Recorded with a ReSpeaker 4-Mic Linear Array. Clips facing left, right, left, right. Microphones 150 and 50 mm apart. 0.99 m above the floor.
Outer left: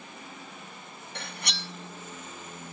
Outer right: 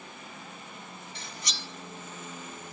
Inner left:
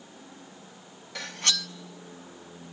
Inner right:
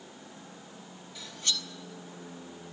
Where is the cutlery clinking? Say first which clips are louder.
Outer left 6 dB, inner left 5 dB; 65° left (ahead or behind), 0.6 m.